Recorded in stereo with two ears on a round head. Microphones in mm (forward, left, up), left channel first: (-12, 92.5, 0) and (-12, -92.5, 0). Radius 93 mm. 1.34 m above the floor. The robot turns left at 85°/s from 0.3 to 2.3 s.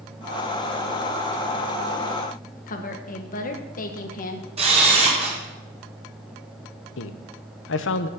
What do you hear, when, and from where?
2.7 s a woman speaking: 45° left (ahead or behind), 1.6 m
4.6 s a camera shutter: 30° right (ahead or behind), 5 m
7.0 s a man speaking: 65° left (ahead or behind), 1.1 m